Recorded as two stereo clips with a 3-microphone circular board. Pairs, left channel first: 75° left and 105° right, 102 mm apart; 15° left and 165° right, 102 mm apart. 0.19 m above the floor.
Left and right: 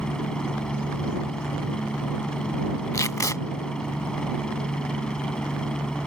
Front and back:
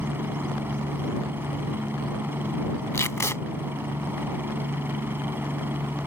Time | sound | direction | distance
0.0 | a helicopter | 150° left | ?
2.9 | tape being pulled | 55° left | ?